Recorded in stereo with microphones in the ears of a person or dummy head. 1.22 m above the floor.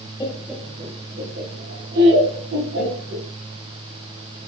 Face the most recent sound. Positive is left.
turn(degrees=-65)  # may be behind; listen again after turning